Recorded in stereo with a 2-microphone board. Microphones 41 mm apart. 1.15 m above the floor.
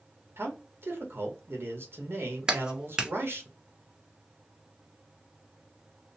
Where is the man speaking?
65° right (ahead or behind), 1.1 m.